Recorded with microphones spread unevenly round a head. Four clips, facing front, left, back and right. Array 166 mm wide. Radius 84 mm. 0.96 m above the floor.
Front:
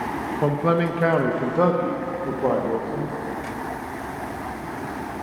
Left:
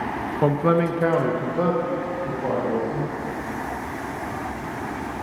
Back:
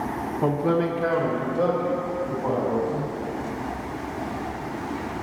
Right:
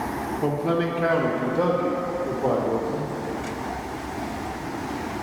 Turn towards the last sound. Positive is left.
turn(degrees=-25)